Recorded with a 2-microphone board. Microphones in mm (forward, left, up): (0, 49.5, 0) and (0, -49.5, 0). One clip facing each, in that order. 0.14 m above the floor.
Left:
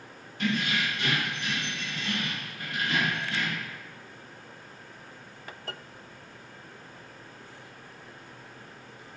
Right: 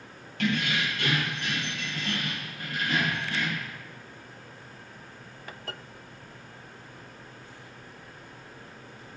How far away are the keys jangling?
About 2.5 m.